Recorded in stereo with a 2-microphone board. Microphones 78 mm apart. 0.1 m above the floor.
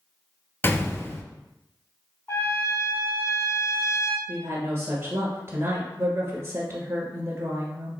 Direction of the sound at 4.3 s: 35° right (ahead or behind).